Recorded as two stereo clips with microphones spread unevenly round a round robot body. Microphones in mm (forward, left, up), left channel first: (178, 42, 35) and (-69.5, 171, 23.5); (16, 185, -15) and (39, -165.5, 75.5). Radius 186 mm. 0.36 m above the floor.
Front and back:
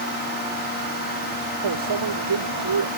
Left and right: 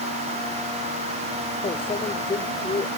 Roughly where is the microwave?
Behind.